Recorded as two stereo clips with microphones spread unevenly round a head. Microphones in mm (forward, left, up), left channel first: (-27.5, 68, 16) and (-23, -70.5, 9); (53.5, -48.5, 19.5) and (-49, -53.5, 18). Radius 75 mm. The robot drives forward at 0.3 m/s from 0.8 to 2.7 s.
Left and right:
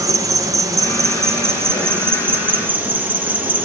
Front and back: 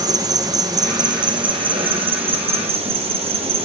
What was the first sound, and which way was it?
An insect, 150° right.